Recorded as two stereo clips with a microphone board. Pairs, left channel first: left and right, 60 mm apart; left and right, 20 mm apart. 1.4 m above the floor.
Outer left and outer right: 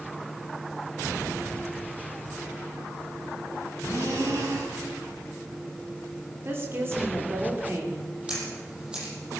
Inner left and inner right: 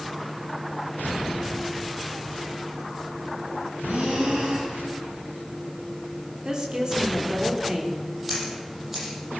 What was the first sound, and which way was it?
Breathing, 70° right (ahead or behind).